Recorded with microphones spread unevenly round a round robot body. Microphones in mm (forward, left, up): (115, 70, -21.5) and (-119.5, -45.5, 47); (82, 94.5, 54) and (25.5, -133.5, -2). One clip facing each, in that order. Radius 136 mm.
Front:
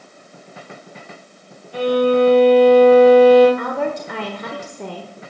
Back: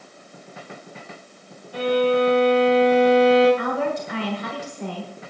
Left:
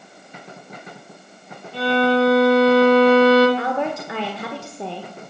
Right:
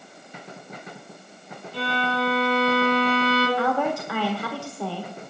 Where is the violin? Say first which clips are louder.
Front 4 dB, left 10 dB; 50° left, 7.5 m.